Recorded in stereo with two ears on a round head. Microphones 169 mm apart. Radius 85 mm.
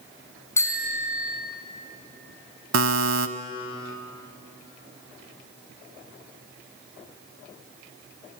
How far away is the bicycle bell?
About 3.5 m.